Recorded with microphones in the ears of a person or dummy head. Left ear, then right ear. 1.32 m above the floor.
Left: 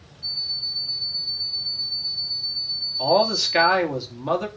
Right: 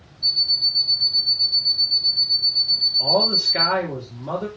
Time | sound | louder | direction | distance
0.2 | an alarm clock | right 8 dB | 30° right (ahead or behind) | 2 m
3.0 | a man speaking | right 2 dB | 50° left (ahead or behind) | 2.5 m